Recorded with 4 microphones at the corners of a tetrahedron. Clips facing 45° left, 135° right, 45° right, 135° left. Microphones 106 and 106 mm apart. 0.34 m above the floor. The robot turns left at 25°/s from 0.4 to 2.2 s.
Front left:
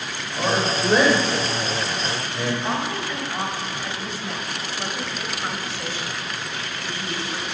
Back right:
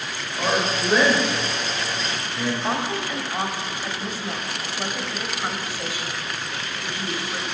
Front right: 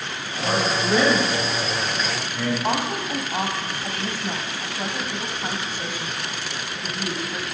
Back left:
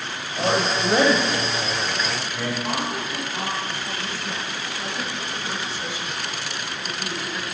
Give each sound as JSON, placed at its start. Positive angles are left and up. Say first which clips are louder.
{"t": 0.4, "sound": "a man speaking", "louder": "front left 1 dB, back left 1 dB", "azimuth_deg": 120, "distance_m": 1.6}
{"t": 2.6, "sound": "a woman speaking", "louder": "even, front right 3 dB", "azimuth_deg": -60, "distance_m": 1.4}